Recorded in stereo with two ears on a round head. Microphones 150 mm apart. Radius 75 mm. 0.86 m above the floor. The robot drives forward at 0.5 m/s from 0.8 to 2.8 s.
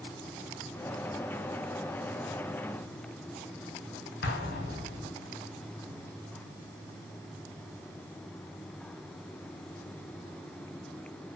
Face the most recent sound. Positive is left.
turn(degrees=65)  # may be behind; listen again after turning